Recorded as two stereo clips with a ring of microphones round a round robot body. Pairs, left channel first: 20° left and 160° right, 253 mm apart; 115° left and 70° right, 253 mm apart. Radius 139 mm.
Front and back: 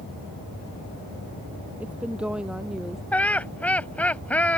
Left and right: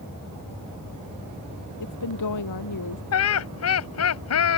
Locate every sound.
1.8 s a woman speaking: 120° left; by 3.0 s 115° left
3.1 s laughter: 105° left